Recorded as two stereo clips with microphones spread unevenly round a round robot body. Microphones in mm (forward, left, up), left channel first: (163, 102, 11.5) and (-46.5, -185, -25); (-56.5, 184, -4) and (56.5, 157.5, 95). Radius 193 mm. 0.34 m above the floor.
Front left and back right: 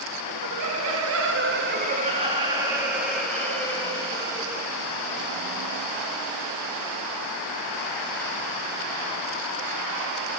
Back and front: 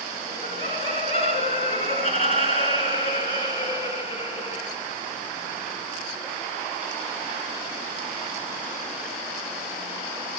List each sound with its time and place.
0.3 s laughter: 165° right, 3.5 m; by 4.8 s 130° left, 6 m